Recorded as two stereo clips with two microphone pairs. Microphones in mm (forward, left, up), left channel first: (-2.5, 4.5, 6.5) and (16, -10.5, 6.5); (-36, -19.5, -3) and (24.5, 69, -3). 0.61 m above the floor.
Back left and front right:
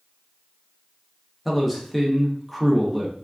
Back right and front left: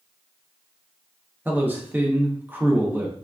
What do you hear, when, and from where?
1.4 s a man speaking: 40° left, 0.6 m